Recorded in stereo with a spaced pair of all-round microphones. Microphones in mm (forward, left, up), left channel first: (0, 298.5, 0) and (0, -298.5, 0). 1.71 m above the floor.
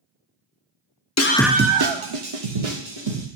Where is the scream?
30° left (ahead or behind), 0.6 m; by 3.3 s 80° right, 2.0 m.